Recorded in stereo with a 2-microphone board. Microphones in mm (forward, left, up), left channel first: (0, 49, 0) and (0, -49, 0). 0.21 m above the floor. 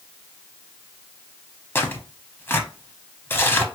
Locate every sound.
1.8 s tearing paper: 25° left (ahead or behind), 0.7 m